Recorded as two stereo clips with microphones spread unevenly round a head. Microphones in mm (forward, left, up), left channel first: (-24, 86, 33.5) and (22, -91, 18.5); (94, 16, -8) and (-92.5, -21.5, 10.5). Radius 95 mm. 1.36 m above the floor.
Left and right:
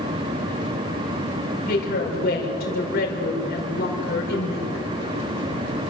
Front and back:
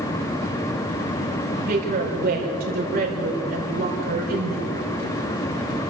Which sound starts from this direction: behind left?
A woman speaking, at 1.7 s.